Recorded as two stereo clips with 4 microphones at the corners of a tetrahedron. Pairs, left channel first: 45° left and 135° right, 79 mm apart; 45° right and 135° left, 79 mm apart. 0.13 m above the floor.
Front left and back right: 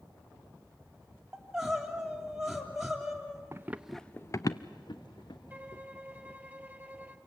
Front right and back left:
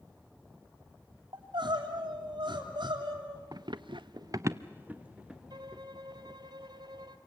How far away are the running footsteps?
About 0.9 m.